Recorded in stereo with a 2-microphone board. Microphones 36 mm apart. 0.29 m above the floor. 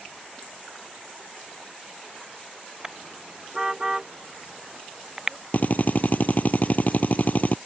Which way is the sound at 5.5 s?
50° left (ahead or behind).